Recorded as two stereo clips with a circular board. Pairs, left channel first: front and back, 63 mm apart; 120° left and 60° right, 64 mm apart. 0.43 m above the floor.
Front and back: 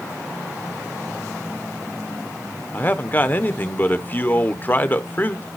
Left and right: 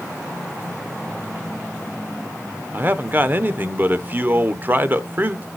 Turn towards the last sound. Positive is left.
turn(degrees=-30)